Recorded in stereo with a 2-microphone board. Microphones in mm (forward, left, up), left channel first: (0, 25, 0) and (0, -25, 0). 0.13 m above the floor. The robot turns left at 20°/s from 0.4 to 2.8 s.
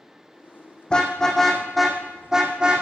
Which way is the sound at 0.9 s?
15° left (ahead or behind).